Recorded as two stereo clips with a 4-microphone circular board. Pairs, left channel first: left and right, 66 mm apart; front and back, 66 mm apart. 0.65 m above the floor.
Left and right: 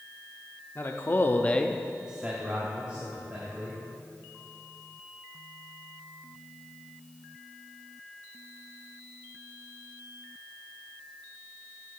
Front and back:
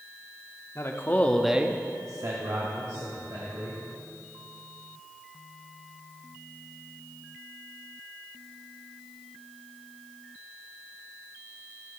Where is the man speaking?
40° left, 1.0 m; by 3.8 s 155° right, 2.5 m.